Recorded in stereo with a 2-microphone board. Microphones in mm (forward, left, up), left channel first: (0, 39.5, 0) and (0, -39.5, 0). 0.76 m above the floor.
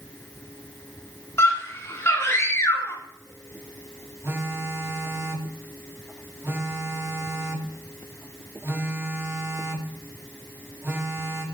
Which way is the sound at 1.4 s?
35° left (ahead or behind).